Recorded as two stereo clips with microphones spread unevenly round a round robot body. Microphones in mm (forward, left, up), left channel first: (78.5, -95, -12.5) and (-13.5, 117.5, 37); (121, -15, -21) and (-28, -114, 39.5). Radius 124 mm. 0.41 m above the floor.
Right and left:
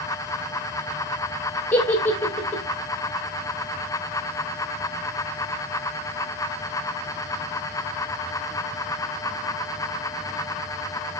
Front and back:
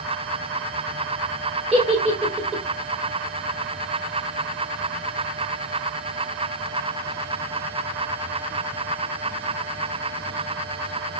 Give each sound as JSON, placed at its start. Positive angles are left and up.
{"t": 1.7, "sound": "a giggle", "azimuth_deg": -95, "distance_m": 0.9}